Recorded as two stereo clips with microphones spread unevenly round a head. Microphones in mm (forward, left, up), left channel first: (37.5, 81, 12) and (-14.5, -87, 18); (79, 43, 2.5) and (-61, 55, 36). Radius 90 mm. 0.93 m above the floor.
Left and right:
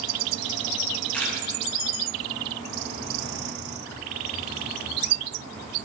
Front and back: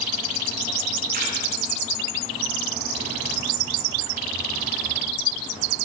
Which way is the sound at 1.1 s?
155° left.